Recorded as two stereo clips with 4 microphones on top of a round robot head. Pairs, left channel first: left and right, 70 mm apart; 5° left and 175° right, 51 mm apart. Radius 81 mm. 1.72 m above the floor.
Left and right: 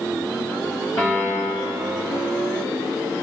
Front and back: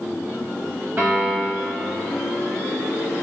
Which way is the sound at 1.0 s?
145° left.